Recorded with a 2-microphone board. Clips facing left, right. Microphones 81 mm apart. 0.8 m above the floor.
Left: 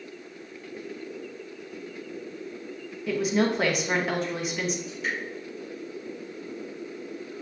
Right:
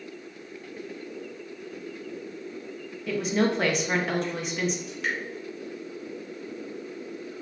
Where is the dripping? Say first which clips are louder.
Right 1 dB; 80° right, 1.8 m.